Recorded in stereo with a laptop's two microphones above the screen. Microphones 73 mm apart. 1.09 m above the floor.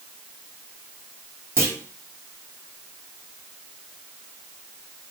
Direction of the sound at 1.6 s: 40° right (ahead or behind).